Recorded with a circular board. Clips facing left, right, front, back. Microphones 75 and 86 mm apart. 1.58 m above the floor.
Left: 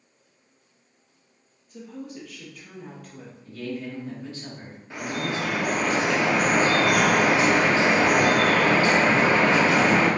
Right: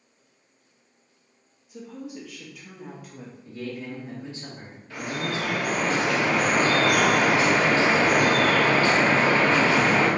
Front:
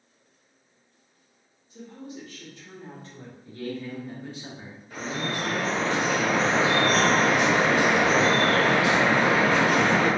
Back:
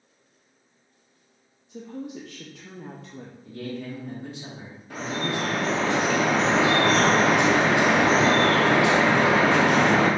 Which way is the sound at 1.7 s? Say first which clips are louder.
Even, back 5 dB; 175° right.